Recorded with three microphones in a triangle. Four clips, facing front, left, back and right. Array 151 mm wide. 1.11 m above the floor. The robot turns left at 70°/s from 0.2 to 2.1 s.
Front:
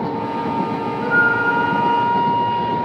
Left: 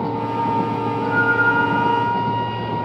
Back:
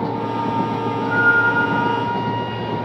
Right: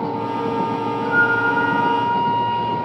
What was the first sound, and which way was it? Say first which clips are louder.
A flute: even, even; 5° left.